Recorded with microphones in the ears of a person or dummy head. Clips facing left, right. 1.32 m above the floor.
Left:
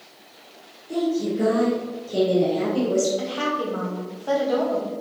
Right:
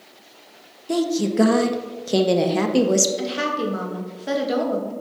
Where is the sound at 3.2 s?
25° right (ahead or behind), 1.9 m.